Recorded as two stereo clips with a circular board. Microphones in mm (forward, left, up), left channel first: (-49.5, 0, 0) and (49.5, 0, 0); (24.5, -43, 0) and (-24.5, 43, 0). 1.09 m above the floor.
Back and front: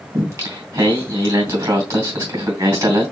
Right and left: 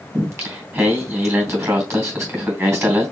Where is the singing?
60° left, 2.5 m.